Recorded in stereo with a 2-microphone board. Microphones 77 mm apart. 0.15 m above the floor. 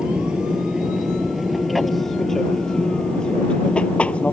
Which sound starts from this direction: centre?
An aircraft, at 0.0 s.